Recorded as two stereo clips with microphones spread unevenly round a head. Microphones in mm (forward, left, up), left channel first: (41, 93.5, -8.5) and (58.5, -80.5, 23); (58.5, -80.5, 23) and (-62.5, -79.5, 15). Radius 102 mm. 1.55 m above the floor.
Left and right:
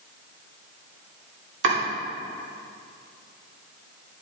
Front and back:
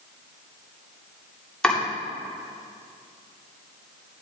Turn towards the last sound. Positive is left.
turn(degrees=-80)